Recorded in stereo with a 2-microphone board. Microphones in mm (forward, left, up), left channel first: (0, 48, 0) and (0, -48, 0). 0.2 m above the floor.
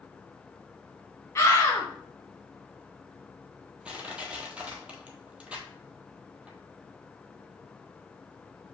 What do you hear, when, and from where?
1.4 s a scream: 30° left (ahead or behind), 1.7 m
3.9 s crushing: 10° right (ahead or behind), 1.1 m